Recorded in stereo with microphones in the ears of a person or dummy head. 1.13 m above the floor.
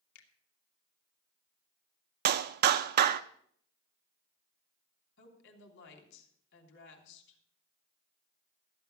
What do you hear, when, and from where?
0.1 s a finger snap: 70° left (ahead or behind), 2.5 m
2.2 s a clap: 50° right (ahead or behind), 0.6 m
5.2 s a woman speaking: 60° left (ahead or behind), 3.5 m